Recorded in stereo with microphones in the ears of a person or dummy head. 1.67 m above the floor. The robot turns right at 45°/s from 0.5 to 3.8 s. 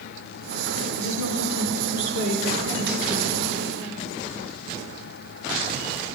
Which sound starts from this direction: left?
A woman speaking, at 1.0 s.